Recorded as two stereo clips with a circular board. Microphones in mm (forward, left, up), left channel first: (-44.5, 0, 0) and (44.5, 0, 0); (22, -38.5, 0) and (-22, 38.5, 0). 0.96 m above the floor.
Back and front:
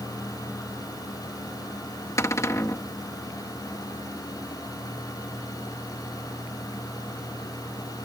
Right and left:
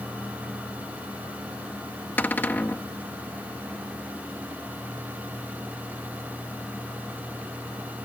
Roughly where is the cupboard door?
Behind right.